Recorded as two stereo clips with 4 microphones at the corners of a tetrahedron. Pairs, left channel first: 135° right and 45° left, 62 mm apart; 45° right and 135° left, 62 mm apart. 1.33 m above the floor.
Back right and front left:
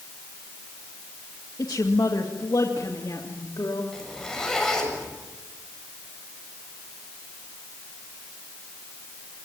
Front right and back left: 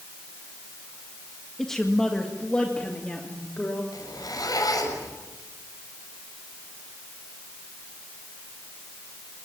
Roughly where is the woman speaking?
Behind right.